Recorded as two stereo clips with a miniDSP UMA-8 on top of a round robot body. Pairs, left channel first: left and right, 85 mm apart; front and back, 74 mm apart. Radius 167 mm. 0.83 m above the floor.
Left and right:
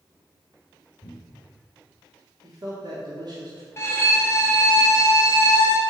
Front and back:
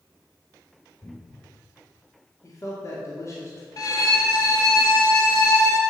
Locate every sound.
1.0 s a cupboard door: 50° left, 2.5 m
2.4 s a man speaking: 50° right, 1.8 m
3.8 s a violin: 35° left, 1.8 m